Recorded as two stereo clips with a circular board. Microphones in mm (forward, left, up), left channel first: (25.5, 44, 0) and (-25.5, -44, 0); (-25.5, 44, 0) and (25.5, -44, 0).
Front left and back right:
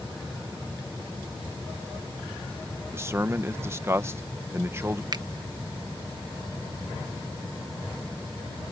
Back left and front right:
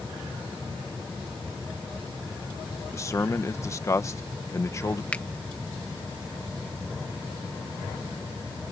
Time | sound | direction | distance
2.9 | a man speaking | 175° left | ?
5.1 | a finger snap | 165° right | ?